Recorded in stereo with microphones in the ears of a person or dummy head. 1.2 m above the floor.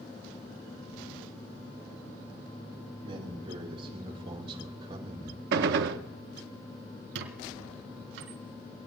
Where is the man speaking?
30° right (ahead or behind), 5 m; by 5.4 s 35° right (ahead or behind), 1.9 m.